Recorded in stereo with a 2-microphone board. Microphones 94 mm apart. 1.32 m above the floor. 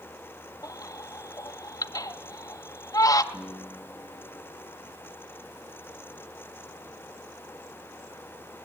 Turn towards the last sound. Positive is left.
turn(degrees=30)  # may be behind; listen again after turning